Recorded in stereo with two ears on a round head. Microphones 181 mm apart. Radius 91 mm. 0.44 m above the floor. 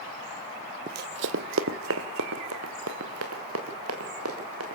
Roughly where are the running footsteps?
Right.